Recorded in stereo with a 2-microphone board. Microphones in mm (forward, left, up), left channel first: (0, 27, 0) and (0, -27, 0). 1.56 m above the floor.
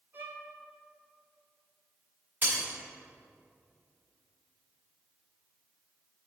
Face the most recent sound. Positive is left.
turn(degrees=-35)  # may be behind; listen again after turning